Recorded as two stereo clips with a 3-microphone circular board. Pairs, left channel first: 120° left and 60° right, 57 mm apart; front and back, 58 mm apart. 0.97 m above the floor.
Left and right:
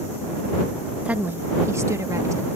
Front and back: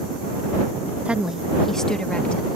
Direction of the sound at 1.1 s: 115° right.